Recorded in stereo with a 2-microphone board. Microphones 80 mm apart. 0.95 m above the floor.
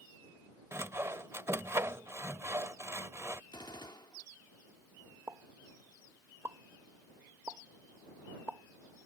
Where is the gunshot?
75° left (ahead or behind).